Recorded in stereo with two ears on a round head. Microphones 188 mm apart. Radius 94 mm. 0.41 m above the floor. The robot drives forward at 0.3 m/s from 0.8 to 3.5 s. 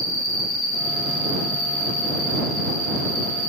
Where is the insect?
35° left (ahead or behind), 1.7 m; by 3.5 s 25° left (ahead or behind), 2.5 m.